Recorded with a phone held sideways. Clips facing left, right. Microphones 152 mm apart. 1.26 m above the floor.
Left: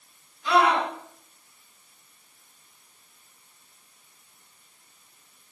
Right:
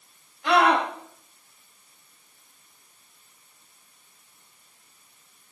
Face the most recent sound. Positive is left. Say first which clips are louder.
# right 1 dB
turn(degrees=-70)  # may be behind; listen again after turning